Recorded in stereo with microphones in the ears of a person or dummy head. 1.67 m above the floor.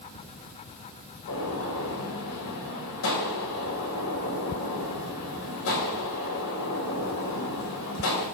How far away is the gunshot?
About 6.5 m.